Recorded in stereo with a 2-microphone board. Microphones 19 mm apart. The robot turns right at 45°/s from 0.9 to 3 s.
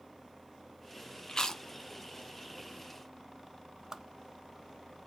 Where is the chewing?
45° left (ahead or behind), 0.6 m; by 1.6 s 30° left (ahead or behind), 0.6 m.